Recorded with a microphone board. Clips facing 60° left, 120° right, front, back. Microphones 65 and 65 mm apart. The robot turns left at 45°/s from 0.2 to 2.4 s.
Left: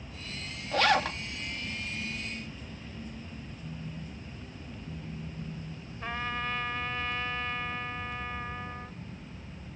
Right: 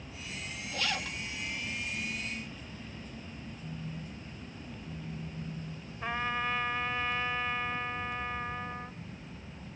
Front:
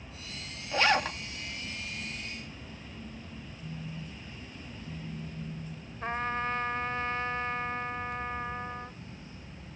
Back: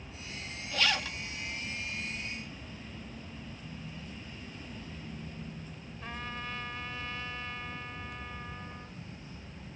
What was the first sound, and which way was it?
A zipper, 60° left.